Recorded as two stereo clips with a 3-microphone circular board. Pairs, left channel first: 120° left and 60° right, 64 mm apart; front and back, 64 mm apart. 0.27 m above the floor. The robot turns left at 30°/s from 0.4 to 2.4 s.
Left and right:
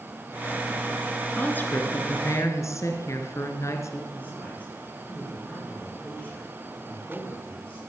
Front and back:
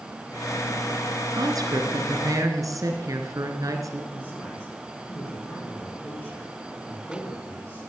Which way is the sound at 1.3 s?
170° right.